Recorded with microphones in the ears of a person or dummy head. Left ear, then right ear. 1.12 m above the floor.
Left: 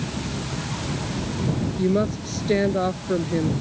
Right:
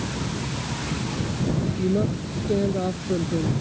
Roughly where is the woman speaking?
Left.